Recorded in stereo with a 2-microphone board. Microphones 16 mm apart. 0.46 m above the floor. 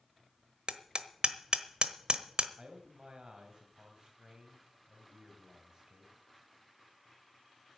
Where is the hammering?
65° right (ahead or behind), 1.2 m.